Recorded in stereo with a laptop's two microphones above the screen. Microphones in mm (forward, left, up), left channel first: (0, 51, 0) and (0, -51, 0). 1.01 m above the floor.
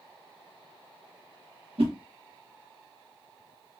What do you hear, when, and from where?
1.8 s a whoosh: 80° right, 0.9 m